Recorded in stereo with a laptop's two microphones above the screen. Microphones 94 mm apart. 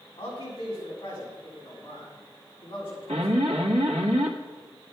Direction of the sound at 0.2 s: 40° left (ahead or behind).